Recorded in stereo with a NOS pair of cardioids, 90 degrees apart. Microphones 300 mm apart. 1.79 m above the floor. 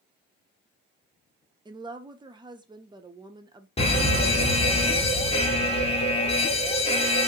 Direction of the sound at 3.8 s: 20° left.